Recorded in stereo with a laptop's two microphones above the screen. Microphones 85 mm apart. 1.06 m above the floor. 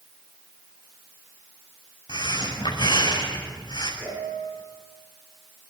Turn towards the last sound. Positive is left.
turn(degrees=-90)